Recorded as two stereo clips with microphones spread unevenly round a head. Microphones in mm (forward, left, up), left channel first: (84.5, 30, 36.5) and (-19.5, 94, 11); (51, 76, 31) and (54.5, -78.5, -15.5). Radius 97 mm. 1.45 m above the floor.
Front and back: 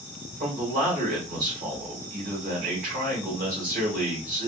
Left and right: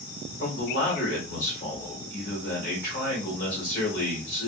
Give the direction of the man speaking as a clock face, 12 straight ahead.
7 o'clock.